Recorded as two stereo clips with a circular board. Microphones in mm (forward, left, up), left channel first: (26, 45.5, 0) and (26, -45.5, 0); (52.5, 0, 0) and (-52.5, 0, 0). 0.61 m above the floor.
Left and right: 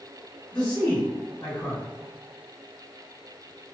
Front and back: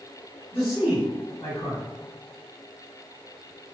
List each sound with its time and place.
0.5 s a man speaking: 15° left, 1.8 m